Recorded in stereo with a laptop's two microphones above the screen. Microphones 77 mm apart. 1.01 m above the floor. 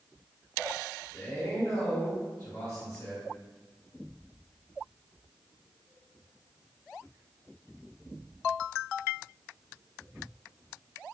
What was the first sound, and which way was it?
A man speaking, 40° left (ahead or behind).